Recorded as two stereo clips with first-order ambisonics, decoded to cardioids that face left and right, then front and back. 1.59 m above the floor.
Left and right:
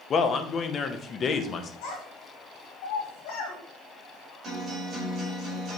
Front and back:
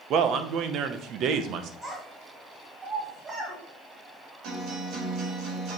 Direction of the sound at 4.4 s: 155° right.